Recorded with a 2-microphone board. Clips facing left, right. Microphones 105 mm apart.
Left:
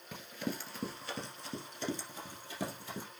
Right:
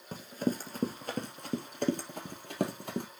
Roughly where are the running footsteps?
Right.